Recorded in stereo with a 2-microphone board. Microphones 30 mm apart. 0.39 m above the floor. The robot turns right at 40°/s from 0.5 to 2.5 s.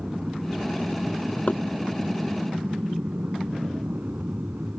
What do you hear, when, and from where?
0.0 s an aircraft: 25° right (ahead or behind); by 4.8 s 70° right (ahead or behind)
1.5 s knocking: 55° left (ahead or behind); by 1.6 s 60° left (ahead or behind)